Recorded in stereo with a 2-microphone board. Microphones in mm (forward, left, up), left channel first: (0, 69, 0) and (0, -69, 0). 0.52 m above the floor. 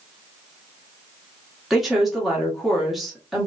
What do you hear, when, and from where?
1.7 s a woman speaking: centre (ahead or behind), 1.0 m